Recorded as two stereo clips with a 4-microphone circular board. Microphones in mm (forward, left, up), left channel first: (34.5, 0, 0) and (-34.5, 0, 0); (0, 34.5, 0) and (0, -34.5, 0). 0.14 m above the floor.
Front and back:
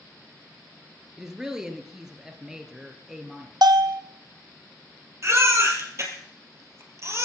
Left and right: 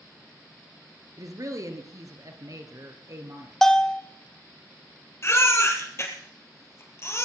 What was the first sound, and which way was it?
A woman speaking, 100° right.